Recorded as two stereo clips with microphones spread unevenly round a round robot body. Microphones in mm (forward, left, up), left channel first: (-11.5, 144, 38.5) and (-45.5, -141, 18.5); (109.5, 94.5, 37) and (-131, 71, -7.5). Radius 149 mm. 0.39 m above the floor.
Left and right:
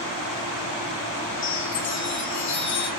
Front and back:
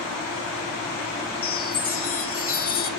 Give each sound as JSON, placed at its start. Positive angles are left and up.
{"t": 1.4, "sound": "a chime", "azimuth_deg": 35, "distance_m": 2.0}